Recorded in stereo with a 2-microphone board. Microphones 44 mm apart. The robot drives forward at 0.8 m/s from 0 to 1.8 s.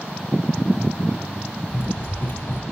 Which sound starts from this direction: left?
Running footsteps, at 1.7 s.